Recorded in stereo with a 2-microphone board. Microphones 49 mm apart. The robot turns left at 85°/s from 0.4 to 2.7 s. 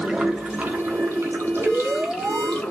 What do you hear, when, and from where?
0.0 s running water: 15° right, 1.0 m; by 2.7 s 150° left, 1.0 m
1.6 s an alarm: 15° right, 2.0 m; by 2.6 s 100° right, 2.0 m